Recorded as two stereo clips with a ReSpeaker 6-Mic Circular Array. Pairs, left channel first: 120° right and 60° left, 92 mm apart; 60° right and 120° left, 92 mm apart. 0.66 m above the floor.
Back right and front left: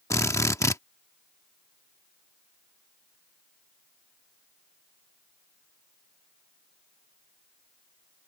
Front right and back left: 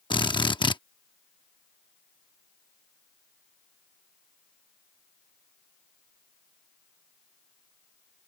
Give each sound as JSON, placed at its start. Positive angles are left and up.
{"t": 0.1, "sound": "a drill", "azimuth_deg": -70}